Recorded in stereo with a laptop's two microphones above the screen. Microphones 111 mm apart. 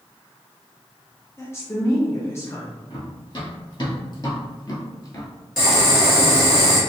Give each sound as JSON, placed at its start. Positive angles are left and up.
{"t": 1.4, "sound": "a woman speaking", "side_deg": 25, "distance_m": 0.7}
{"t": 2.9, "sound": "running footsteps", "side_deg": 40, "distance_m": 1.6}
{"t": 5.6, "sound": "boiling", "side_deg": 0, "distance_m": 2.0}